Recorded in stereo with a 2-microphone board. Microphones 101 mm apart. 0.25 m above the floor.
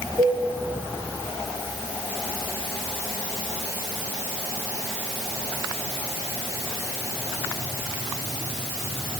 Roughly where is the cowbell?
Right.